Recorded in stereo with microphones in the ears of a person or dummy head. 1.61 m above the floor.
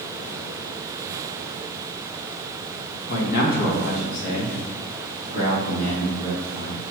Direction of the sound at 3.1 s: 55° left (ahead or behind).